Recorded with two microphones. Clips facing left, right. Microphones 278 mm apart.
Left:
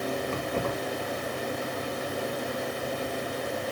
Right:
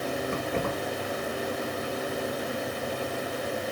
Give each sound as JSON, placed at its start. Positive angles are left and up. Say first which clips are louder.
{"t": 0.3, "sound": "keys jangling", "louder": "even", "side_deg": -80, "distance_m": 7.0}